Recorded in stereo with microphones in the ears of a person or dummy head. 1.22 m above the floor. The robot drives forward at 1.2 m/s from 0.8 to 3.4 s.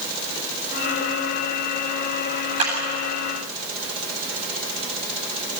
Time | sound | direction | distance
2.6 | a clap | 40° right (ahead or behind) | 8 m